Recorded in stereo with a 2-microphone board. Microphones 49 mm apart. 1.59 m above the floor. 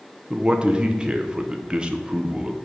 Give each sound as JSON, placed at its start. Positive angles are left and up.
{"t": 0.3, "sound": "a man speaking", "side_deg": -20, "distance_m": 0.7}